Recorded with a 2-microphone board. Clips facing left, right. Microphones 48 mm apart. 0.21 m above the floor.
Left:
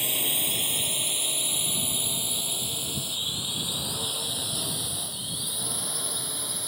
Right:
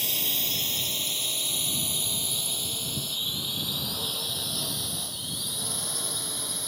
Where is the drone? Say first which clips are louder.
Left 1 dB; 15° left (ahead or behind); by 6.7 s centre (ahead or behind).